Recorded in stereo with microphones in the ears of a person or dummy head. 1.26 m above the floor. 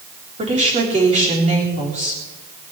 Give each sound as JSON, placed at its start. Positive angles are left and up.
{"t": 0.4, "sound": "a woman speaking", "side_deg": -35, "distance_m": 3.5}